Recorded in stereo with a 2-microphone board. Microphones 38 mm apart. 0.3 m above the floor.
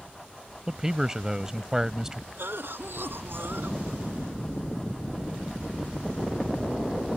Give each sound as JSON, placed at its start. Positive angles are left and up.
{"t": 0.7, "sound": "a man speaking", "side_deg": -15}
{"t": 2.4, "sound": "a cough", "side_deg": -70}